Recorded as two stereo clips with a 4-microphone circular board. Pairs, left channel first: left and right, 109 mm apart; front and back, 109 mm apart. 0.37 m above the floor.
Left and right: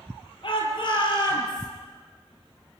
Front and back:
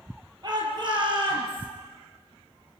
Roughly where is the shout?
Behind left.